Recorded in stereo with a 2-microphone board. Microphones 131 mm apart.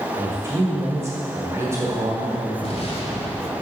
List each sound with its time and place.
0.2 s a man speaking: 20° right (ahead or behind), 1.2 m
2.6 s an explosion: 50° left (ahead or behind), 1.5 m